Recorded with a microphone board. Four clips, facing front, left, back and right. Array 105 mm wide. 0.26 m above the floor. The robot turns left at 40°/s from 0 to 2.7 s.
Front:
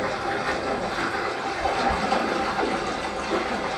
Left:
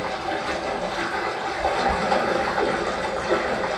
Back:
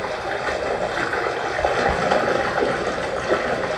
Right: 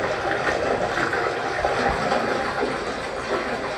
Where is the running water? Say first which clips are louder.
Right 3 dB, back 1 dB; 90° right, 1.1 m; by 3.8 s 160° left, 1.1 m.